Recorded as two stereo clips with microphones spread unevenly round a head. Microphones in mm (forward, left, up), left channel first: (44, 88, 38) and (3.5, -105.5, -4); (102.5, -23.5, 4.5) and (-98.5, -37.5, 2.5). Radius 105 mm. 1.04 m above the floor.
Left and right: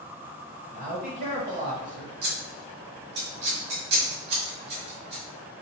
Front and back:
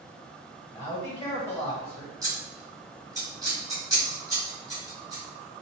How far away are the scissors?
About 1.8 m.